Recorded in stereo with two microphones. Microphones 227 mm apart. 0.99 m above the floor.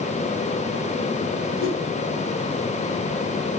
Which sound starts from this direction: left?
A whoosh, at 1.6 s.